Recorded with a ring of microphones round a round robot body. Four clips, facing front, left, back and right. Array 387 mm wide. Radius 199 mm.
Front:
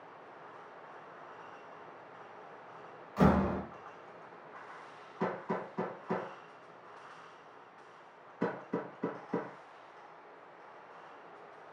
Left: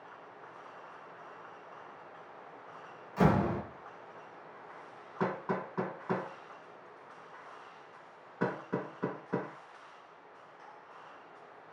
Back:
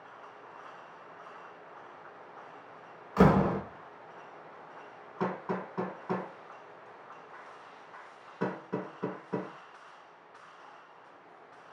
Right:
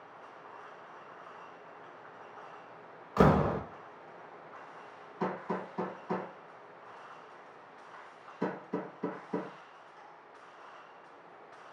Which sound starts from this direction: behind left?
Hammering, at 5.2 s.